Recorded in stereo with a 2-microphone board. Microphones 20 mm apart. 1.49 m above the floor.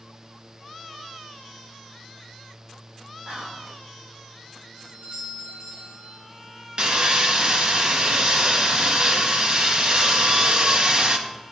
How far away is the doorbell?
About 4 m.